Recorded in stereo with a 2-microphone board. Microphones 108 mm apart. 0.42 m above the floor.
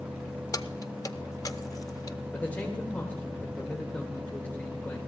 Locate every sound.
0.5 s keys jangling: 35° left (ahead or behind), 0.6 m
2.3 s a man speaking: 15° left (ahead or behind), 1.4 m